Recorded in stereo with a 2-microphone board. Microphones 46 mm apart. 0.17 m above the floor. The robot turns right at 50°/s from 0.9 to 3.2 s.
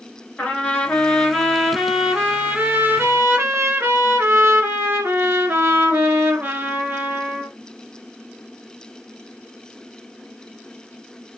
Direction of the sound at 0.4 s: 145° left.